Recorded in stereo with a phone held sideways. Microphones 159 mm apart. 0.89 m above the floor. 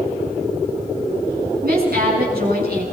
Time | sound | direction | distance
1.6 | a woman speaking | 70° right (ahead or behind) | 7.5 m